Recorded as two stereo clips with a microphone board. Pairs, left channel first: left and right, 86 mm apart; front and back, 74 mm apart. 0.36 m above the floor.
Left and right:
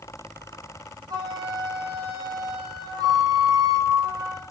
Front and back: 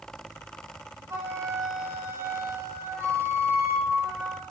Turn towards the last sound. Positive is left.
turn(degrees=-125)